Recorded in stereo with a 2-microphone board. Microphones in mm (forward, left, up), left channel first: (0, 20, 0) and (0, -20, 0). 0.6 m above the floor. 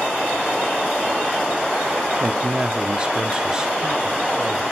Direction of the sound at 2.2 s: 25° right (ahead or behind).